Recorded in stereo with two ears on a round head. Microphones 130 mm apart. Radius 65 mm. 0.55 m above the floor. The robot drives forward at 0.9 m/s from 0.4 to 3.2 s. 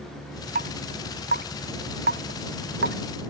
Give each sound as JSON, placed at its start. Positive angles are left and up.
{"t": 0.6, "sound": "dripping", "side_deg": -60}